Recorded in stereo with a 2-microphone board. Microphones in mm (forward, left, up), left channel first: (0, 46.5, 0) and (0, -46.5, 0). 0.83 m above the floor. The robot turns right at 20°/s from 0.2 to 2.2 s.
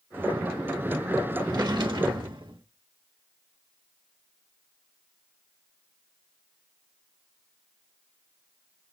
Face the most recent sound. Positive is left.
turn(degrees=-60)  # may be behind; listen again after turning